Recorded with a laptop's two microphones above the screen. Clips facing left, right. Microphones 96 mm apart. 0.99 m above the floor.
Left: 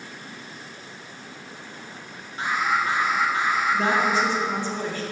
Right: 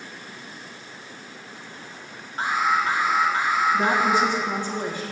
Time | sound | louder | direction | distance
2.4 | an alarm | right 2 dB | 35° right (ahead or behind) | 1.7 m
3.7 | a woman speaking | right 1 dB | 15° right (ahead or behind) | 1.1 m